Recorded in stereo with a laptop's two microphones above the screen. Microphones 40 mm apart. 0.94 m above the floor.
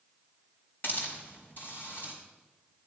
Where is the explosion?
I don't hear an explosion.